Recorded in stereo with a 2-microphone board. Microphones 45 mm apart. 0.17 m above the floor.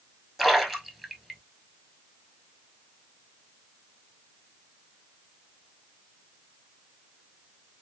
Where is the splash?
5° right (ahead or behind), 0.7 m.